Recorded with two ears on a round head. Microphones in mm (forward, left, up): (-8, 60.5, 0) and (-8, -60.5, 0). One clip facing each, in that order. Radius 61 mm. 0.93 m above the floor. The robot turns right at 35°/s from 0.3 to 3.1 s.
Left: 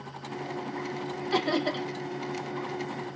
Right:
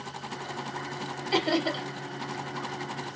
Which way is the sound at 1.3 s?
20° right (ahead or behind).